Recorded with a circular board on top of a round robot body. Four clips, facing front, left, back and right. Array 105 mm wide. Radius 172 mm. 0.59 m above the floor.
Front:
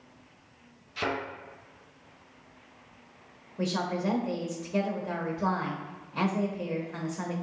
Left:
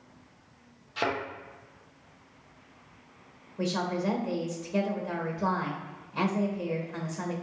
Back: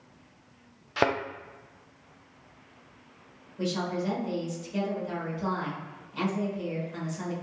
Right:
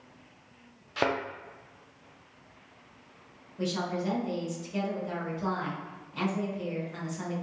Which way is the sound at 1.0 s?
165° right.